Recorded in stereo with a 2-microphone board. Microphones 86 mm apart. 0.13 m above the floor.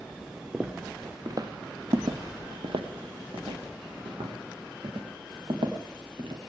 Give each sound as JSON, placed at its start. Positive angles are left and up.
{"t": 0.5, "sound": "footsteps", "side_deg": -15, "distance_m": 1.1}